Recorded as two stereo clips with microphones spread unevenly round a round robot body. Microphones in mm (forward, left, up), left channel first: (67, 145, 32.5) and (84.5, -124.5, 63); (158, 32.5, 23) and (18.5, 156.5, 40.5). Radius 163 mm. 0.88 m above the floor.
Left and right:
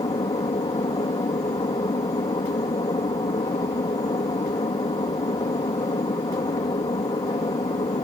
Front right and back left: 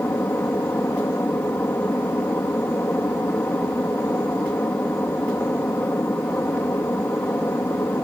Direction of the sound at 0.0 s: 30° left.